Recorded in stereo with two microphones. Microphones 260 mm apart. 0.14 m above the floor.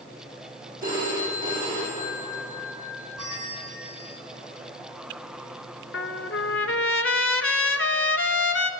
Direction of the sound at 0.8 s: 35° right (ahead or behind).